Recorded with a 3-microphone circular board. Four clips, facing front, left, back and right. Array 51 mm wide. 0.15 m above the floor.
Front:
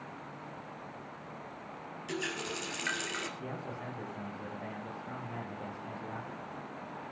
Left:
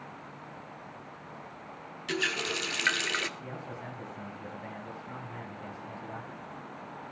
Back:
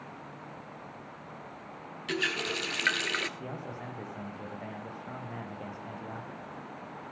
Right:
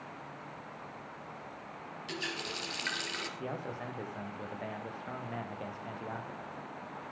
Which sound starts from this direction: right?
A man speaking, at 3.4 s.